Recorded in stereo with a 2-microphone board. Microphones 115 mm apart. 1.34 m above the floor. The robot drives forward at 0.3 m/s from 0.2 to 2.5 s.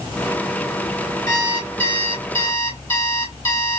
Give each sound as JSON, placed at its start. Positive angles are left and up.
{"t": 1.3, "sound": "an alarm clock", "side_deg": 25, "distance_m": 3.0}